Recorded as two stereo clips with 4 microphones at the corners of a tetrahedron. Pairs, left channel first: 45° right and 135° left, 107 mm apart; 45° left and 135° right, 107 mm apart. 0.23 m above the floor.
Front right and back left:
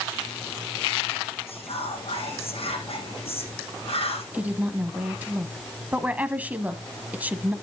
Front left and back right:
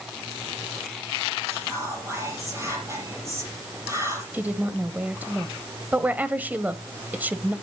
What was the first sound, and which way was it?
Whispering, 75° right.